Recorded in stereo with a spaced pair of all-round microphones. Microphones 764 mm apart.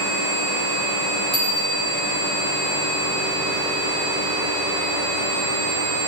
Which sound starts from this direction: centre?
A bicycle bell, at 1.3 s.